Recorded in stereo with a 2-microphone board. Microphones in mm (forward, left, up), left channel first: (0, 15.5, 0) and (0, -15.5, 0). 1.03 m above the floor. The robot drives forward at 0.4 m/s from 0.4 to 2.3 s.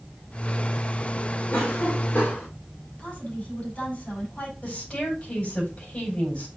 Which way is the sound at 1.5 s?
80° left.